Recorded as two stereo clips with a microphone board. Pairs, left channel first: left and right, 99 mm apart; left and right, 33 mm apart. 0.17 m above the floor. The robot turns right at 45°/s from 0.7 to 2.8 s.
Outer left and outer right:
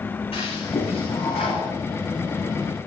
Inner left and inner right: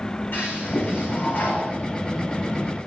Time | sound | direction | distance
0.3 | a toilet flushing | 75° left | 9.5 m